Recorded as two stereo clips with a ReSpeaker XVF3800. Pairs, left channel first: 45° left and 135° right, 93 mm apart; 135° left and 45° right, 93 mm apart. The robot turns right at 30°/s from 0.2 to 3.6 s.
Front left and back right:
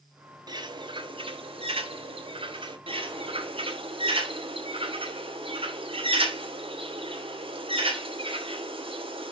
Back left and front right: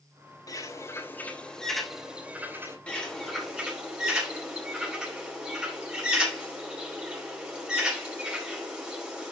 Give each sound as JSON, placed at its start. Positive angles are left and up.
{"t": 0.5, "sound": "a bird", "azimuth_deg": -175, "distance_m": 2.5}
{"t": 2.9, "sound": "a bird", "azimuth_deg": -150, "distance_m": 5.0}